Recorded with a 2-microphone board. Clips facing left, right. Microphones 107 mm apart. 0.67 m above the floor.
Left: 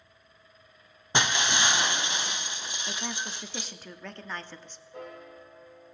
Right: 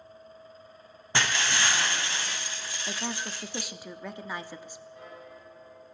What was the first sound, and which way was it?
Breaking glass, 20° left (ahead or behind).